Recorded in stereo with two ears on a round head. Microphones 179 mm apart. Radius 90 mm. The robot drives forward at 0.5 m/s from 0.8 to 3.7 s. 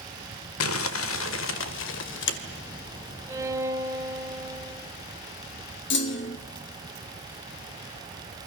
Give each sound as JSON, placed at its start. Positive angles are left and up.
{"t": 0.6, "sound": "crumpling", "side_deg": 80, "distance_m": 2.0}
{"t": 3.3, "sound": "a violin", "side_deg": -15, "distance_m": 2.0}
{"t": 5.9, "sound": "a clunk", "side_deg": 60, "distance_m": 1.7}